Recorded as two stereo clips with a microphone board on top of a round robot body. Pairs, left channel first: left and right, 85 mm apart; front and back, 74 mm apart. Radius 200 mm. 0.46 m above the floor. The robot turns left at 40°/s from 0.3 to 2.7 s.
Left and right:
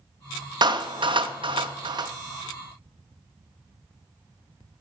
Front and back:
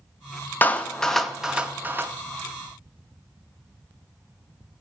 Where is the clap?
65° right, 0.8 m; by 2.1 s 125° right, 0.8 m.